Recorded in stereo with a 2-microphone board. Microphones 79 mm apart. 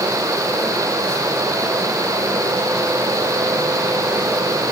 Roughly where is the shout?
No shout in this recording.